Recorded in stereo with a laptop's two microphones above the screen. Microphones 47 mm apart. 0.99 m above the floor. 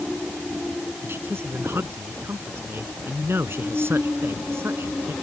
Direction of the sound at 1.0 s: 55° right (ahead or behind).